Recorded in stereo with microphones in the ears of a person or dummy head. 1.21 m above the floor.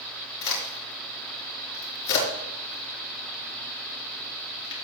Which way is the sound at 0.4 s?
65° left (ahead or behind).